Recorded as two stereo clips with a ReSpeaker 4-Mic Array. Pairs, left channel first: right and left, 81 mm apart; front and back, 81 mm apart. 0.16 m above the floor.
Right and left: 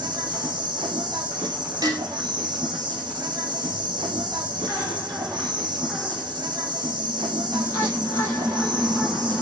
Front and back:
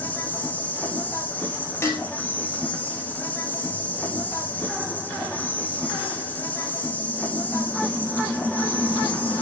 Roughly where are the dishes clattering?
Ahead left.